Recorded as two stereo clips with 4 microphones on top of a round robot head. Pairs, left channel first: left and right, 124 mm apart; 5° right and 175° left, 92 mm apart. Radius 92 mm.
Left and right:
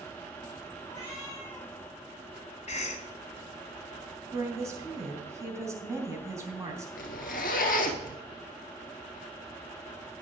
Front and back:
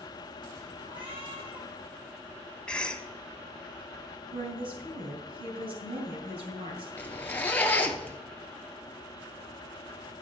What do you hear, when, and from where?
0.8 s a cat meowing: 160° left, 6.5 m
2.7 s a cough: 75° left, 1.9 m
4.3 s a woman speaking: 155° right, 3.5 m
7.0 s a zipper: 65° left, 1.5 m